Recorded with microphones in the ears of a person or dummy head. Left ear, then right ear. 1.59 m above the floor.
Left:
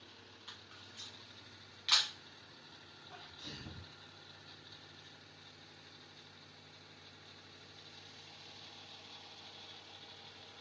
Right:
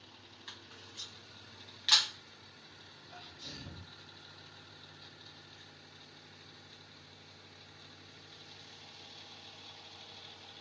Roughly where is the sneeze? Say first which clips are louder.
Right 2 dB; left.